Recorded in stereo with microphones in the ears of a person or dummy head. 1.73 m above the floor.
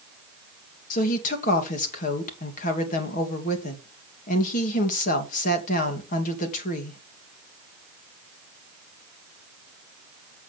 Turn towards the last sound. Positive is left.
turn(degrees=50)  # may be behind; listen again after turning